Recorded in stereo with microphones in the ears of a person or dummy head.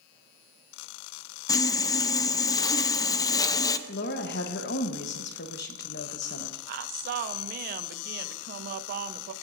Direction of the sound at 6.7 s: 50° right (ahead or behind).